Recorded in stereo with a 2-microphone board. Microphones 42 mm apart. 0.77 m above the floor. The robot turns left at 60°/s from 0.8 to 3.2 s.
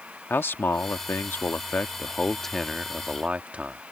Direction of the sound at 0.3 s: 110° left.